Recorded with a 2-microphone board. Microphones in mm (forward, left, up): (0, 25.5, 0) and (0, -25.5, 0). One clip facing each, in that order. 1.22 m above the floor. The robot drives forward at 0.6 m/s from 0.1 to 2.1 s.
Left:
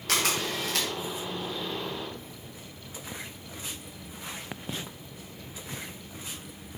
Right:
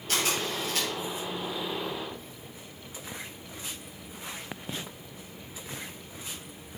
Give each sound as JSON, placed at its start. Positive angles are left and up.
{"t": 0.1, "sound": "a camera shutter", "side_deg": 75, "distance_m": 1.7}